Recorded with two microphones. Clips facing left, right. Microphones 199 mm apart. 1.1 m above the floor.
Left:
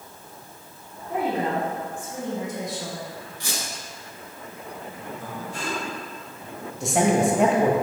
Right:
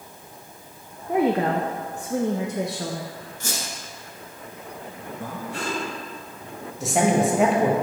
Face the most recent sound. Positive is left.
turn(degrees=0)  # may be behind; listen again after turning